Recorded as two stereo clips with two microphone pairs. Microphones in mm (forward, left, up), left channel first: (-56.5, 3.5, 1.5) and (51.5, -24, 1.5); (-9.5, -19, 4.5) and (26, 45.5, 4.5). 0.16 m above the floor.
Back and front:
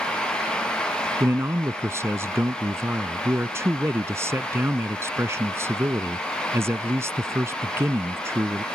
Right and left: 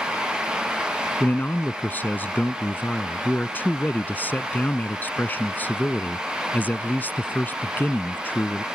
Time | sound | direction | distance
1.2 | a man speaking | 65° right | ?